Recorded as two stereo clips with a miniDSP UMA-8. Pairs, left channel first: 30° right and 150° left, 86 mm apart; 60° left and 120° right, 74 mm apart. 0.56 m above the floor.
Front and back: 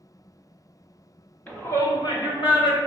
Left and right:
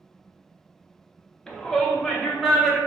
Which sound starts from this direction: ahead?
A shout, at 1.5 s.